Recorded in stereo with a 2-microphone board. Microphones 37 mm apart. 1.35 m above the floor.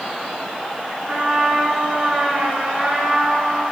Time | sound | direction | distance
1.1 | a trumpet | 25° right (ahead or behind) | 4 m